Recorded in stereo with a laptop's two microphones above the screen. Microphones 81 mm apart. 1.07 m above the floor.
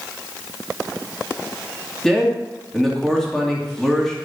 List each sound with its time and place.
2.0 s a man speaking: 5° left (ahead or behind), 2.5 m